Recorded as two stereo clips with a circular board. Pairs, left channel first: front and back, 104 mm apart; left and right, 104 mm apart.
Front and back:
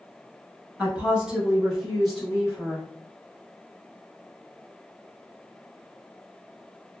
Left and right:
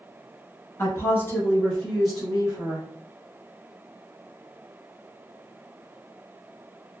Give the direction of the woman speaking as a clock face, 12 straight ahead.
8 o'clock.